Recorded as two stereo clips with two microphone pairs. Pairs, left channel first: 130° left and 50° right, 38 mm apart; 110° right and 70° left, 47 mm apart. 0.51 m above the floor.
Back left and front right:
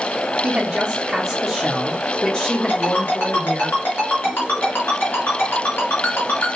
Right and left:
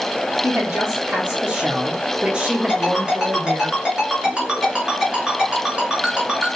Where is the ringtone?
140° left, 2.5 m.